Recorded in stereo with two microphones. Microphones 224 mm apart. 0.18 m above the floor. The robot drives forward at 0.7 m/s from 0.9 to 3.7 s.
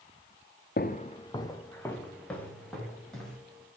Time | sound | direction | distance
0.8 | footsteps | 45° left (ahead or behind) | 0.9 m